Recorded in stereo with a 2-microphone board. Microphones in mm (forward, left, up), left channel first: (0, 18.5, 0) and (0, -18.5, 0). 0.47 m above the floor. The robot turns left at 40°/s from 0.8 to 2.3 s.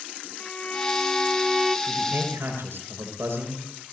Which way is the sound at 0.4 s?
40° left.